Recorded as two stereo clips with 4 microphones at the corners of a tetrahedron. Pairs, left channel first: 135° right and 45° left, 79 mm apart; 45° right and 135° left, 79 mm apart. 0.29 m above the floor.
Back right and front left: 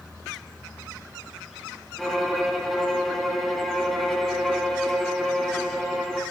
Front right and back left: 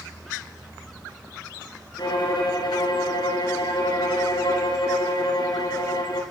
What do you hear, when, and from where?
2.0 s a violin: 45° right, 2.5 m